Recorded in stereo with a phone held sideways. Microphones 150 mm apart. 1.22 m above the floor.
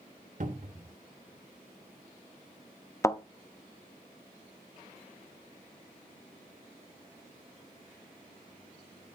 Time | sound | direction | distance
0.4 | a cupboard door | 55° right (ahead or behind) | 1.3 m
3.0 | a thud | 20° left (ahead or behind) | 0.6 m